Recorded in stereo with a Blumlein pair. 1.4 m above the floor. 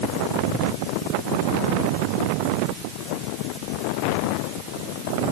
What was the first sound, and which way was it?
Only background noise.